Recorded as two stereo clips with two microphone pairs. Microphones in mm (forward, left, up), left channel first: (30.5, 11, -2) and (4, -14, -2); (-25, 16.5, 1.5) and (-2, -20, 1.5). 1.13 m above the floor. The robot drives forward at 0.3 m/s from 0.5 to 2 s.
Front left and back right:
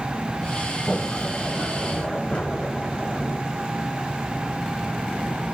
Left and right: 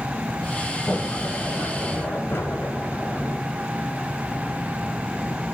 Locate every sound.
0.9 s a sliding door: 95° left, 7.5 m